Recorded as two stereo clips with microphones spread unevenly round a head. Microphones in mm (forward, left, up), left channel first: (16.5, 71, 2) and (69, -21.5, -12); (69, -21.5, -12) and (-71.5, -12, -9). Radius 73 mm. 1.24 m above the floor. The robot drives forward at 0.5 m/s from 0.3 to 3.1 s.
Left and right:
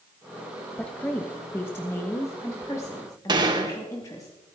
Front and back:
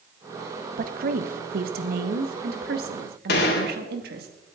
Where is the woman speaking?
155° right, 0.9 m; by 4.3 s 170° right, 2 m.